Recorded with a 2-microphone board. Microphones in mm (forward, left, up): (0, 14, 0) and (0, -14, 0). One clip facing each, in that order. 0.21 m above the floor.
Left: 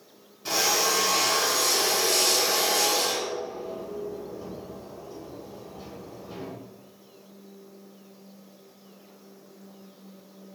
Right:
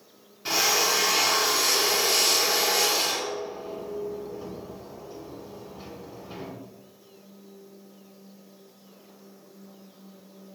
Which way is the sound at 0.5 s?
25° right (ahead or behind).